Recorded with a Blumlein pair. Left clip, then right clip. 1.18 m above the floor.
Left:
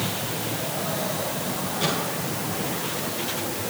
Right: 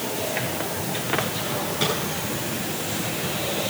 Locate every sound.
1.8 s a microwave: 70° right, 8.5 m